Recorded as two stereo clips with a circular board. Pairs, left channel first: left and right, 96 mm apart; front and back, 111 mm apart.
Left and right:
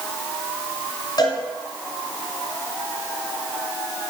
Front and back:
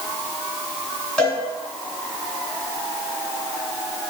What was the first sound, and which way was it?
A cowbell, 75° left.